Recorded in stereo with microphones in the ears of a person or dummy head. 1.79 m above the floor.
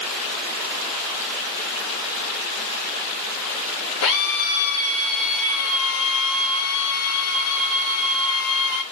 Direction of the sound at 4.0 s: 80° left.